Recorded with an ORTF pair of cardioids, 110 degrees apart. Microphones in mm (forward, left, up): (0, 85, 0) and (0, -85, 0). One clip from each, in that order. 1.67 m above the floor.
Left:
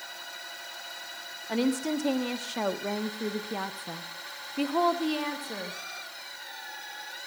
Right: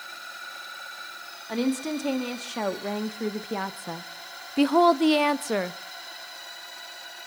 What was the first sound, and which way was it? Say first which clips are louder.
A woman speaking: even; straight ahead.